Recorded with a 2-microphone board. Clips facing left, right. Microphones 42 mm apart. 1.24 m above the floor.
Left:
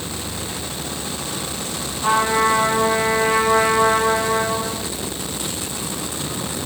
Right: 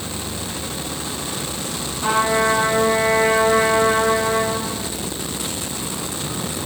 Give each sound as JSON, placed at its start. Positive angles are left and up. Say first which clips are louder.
{"t": 2.0, "sound": "a trumpet", "louder": "left 1 dB", "side_deg": -35, "distance_m": 4.5}